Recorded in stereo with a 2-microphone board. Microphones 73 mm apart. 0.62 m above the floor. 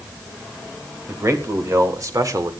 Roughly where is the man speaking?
Right.